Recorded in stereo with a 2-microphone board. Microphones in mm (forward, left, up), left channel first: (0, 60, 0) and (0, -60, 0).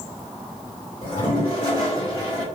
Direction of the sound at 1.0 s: 40° left (ahead or behind).